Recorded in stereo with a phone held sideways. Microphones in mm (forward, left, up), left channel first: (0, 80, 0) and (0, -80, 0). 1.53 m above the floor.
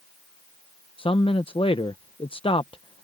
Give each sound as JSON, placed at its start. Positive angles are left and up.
{"t": 1.0, "sound": "a man speaking", "side_deg": 35}